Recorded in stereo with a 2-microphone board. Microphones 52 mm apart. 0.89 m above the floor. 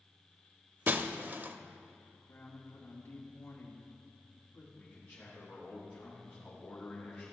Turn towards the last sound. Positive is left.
turn(degrees=30)  # may be behind; listen again after turning